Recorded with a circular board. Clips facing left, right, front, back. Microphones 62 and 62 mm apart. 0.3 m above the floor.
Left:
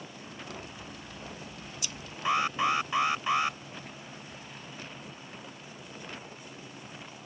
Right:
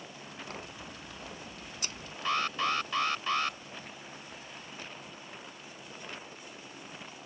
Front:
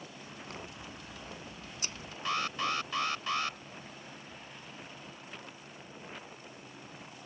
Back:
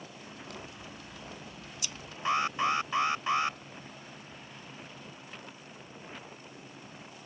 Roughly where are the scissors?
Ahead right.